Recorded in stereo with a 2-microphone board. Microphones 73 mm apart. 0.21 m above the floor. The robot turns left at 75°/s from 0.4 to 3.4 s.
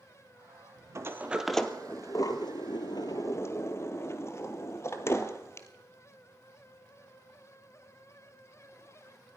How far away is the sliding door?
About 1.0 m.